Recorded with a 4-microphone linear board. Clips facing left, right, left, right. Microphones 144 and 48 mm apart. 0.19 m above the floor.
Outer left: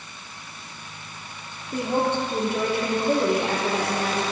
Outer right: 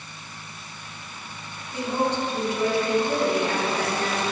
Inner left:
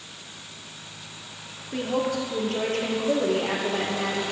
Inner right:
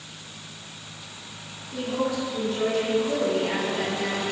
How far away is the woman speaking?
About 3 m.